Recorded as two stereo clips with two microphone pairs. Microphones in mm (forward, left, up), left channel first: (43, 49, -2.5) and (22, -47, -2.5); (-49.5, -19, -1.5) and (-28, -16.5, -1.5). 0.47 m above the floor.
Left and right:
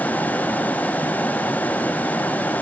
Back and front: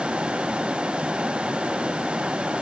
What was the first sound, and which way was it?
Only background noise.